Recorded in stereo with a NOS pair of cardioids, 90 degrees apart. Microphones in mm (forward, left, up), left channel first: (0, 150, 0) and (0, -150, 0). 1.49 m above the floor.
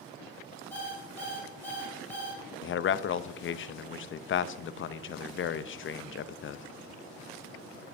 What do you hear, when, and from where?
0.7 s an alarm clock: 5° left, 3.5 m
2.6 s a man speaking: 40° left, 0.6 m